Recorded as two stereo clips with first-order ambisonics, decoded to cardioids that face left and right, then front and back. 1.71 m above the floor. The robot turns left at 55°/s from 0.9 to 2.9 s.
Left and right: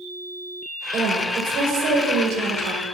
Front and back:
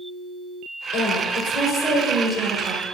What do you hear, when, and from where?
0.9 s a woman speaking: 20° right, 6 m; by 2.8 s 125° right, 6 m